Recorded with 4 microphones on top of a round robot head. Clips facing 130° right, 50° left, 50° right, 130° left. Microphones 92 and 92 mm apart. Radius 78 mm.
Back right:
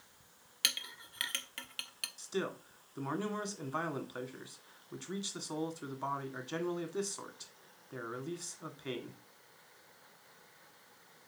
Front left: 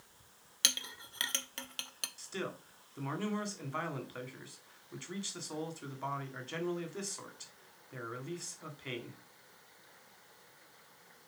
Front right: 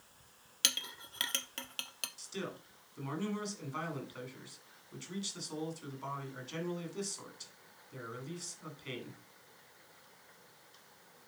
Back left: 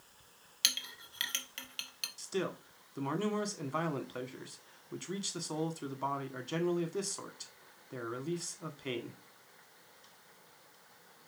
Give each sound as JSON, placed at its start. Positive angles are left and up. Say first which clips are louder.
{"t": 0.6, "sound": "a clink", "louder": "front left 1 dB, front right 1 dB", "azimuth_deg": -5, "distance_m": 0.9}
{"t": 2.2, "sound": "a man speaking", "louder": "back right 4 dB, back left 7 dB", "azimuth_deg": 160, "distance_m": 1.7}